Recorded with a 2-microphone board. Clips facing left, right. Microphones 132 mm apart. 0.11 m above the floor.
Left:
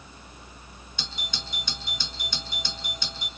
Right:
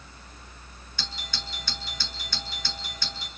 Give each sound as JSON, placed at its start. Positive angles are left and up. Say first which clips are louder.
{"t": 1.0, "sound": "a doorbell", "louder": "even", "side_deg": 20, "distance_m": 1.5}